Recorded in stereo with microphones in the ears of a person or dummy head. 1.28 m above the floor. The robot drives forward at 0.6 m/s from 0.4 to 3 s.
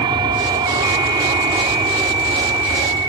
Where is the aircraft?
20° right (ahead or behind).